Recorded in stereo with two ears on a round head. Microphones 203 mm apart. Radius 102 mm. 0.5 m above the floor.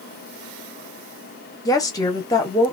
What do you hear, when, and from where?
1.6 s a woman speaking: 15° left (ahead or behind), 0.8 m